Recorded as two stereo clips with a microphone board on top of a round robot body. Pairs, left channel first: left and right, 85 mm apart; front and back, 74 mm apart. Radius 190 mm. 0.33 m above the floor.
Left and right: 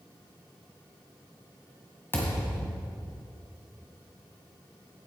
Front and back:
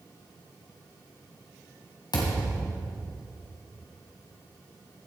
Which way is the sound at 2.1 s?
25° left.